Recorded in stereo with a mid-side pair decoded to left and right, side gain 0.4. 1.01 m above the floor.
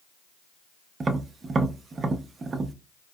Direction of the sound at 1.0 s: 45° right.